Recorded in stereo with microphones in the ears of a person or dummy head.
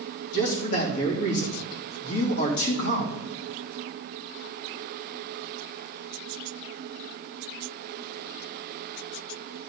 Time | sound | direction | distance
0.3 | a man speaking | 80° left | 3 m